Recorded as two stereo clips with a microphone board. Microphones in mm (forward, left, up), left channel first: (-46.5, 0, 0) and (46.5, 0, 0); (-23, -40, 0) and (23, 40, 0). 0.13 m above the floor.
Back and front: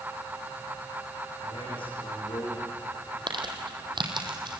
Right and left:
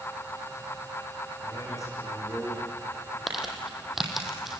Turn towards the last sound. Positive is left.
turn(degrees=-25)